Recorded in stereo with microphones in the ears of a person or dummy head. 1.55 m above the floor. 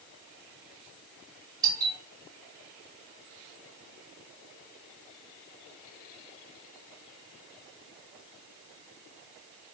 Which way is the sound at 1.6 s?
25° right (ahead or behind).